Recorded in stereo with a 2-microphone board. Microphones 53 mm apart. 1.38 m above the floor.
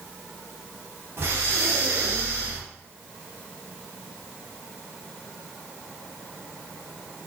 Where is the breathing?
50° right (ahead or behind), 0.6 m.